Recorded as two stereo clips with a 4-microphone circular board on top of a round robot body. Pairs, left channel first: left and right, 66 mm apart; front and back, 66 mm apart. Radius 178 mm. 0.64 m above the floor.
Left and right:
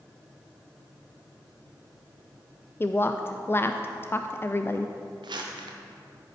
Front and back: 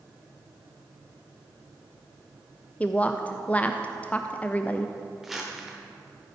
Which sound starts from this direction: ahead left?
A woman speaking, at 2.8 s.